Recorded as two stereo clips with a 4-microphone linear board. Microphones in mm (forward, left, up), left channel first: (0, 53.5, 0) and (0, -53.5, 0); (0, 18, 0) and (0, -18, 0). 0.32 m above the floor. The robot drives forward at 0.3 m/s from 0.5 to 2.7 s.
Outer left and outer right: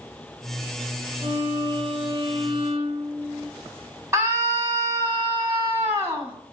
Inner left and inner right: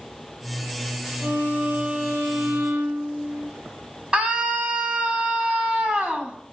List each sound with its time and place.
1.2 s a violin: 55° right (ahead or behind), 1.2 m; by 3.5 s 60° right (ahead or behind), 1.1 m
4.1 s a scream: 25° right (ahead or behind), 1.7 m